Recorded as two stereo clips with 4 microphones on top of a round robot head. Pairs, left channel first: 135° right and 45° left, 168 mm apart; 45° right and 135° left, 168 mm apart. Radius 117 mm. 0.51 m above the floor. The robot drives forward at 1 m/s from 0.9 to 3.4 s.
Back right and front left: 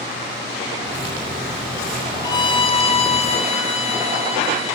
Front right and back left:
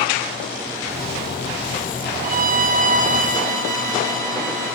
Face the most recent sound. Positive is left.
turn(degrees=175)